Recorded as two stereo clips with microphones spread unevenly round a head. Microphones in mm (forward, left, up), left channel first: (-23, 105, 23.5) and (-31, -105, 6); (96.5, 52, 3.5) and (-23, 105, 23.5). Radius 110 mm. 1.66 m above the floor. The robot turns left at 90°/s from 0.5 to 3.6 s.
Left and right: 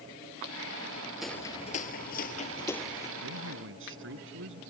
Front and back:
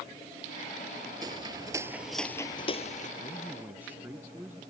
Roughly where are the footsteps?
Behind.